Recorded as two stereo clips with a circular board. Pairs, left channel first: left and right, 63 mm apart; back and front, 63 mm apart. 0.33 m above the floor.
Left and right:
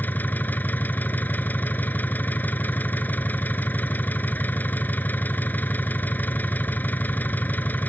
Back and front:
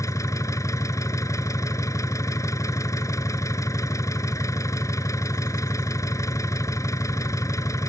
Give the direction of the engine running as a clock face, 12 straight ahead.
7 o'clock.